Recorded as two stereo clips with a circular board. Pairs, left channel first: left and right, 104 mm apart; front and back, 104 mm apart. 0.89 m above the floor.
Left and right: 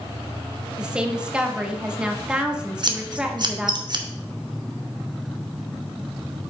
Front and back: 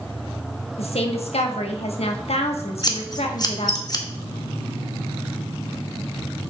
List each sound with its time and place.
0.8 s a woman speaking: 10° right, 1.2 m
2.8 s scissors: 50° right, 1.0 m